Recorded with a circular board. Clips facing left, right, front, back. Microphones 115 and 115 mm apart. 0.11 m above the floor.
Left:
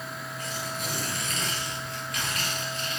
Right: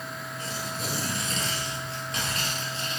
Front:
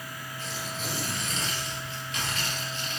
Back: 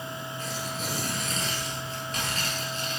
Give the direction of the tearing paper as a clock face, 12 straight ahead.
5 o'clock.